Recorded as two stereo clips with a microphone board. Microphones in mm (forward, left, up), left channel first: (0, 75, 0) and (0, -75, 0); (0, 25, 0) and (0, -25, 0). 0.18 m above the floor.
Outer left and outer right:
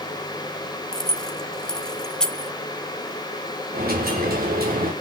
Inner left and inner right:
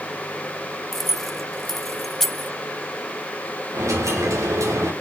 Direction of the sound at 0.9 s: 5° left (ahead or behind).